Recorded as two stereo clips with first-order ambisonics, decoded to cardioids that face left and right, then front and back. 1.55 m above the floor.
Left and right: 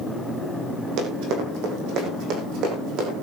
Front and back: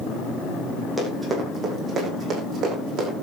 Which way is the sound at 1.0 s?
90° right.